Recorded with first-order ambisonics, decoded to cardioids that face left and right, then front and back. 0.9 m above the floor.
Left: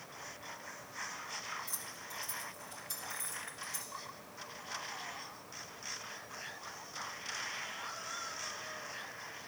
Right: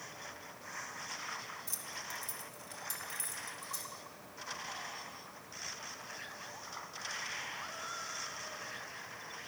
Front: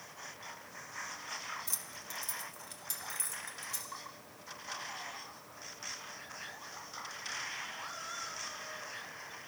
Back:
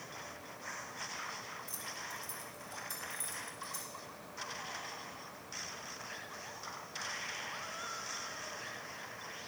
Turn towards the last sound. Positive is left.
turn(degrees=-30)